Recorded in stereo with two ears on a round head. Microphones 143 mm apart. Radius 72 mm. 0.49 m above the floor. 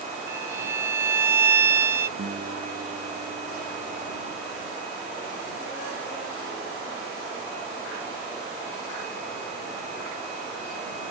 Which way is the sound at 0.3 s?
15° right (ahead or behind).